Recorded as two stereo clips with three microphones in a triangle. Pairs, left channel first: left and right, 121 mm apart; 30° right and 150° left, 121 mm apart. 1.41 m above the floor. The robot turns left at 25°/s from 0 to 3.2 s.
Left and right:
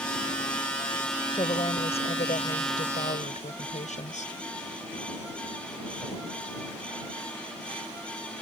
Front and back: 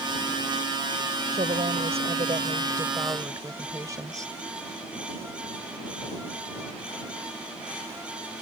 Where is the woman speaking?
135° left; by 4.3 s 90° left.